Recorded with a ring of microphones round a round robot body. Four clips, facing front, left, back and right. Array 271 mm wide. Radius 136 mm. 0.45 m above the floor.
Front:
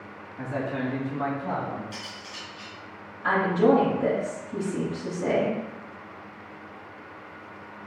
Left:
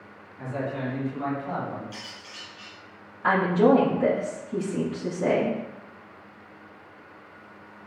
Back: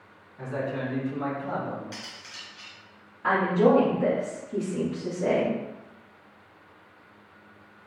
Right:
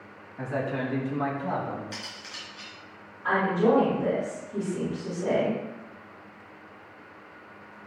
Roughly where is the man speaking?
Ahead right.